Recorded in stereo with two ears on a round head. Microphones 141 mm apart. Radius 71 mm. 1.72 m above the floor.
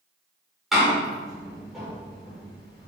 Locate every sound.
0.7 s a door slam: centre (ahead or behind), 5 m